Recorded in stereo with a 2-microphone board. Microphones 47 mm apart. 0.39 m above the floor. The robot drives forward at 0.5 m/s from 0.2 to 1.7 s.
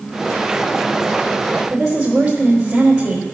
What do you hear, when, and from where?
1.7 s a woman speaking: 15° right (ahead or behind), 2 m